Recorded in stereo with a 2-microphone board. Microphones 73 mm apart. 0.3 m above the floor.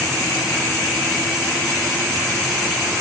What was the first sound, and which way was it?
Only background noise.